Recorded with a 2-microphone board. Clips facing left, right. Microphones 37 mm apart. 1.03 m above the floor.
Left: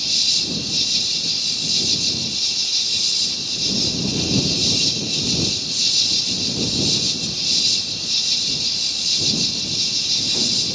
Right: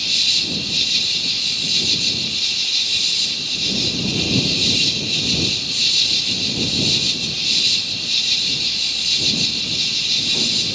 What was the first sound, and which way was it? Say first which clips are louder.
An insect: right 3 dB; 45° right (ahead or behind).